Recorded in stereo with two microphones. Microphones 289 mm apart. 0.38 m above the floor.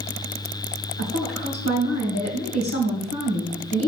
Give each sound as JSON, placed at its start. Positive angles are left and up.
{"t": 1.0, "sound": "a woman speaking", "side_deg": 60, "distance_m": 2.5}